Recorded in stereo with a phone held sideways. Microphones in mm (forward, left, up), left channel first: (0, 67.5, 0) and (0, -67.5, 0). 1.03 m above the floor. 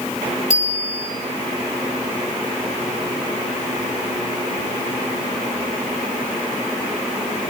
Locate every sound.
0.5 s a bicycle bell: 60° left (ahead or behind), 3 m